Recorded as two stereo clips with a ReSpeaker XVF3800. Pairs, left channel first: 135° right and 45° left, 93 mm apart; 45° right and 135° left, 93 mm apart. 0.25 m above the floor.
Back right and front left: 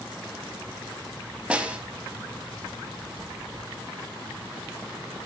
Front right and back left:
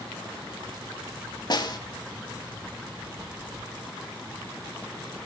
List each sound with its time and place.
1.5 s a snare drum: 30° right, 0.6 m